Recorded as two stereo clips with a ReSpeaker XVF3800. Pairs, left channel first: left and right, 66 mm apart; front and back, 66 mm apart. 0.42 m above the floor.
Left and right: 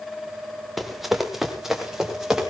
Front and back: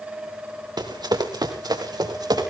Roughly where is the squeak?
No squeak in this recording.